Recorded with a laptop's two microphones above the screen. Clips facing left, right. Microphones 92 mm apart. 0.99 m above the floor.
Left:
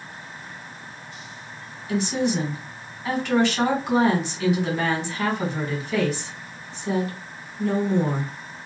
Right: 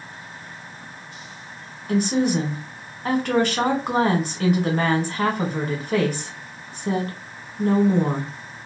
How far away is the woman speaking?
About 1.7 m.